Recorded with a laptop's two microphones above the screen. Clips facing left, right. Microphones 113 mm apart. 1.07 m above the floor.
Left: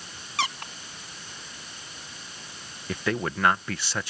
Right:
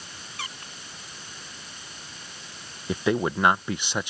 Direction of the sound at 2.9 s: 20° right (ahead or behind).